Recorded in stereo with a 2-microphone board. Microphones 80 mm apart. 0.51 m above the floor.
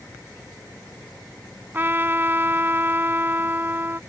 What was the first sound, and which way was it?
A trumpet, 25° right (ahead or behind).